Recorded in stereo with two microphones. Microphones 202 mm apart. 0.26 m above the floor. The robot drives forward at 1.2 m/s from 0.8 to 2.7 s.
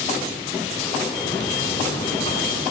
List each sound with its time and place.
1.2 s a buzzer: 45° left (ahead or behind), 1.3 m; by 2.6 s 20° left (ahead or behind), 2.5 m